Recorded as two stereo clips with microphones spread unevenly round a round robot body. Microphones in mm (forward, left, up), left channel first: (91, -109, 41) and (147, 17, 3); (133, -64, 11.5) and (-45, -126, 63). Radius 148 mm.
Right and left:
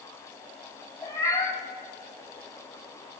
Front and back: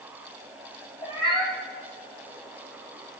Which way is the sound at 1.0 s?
45° right.